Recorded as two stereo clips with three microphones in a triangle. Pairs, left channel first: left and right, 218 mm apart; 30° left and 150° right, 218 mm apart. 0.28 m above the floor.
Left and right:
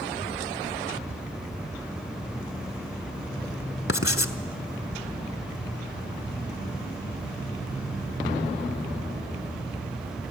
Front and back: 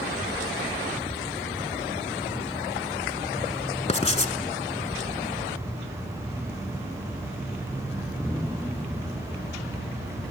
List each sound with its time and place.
3.9 s writing: 90° left, 0.8 m